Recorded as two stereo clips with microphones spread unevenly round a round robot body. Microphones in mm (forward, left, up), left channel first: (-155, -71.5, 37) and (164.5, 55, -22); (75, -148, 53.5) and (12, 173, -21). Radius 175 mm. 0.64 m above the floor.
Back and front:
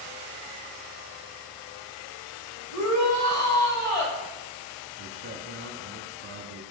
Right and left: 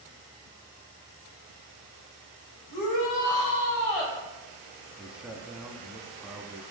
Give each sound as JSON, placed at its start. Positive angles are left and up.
{"t": 2.7, "sound": "a shout", "azimuth_deg": -110, "distance_m": 3.0}
{"t": 5.0, "sound": "a man speaking", "azimuth_deg": 30, "distance_m": 0.7}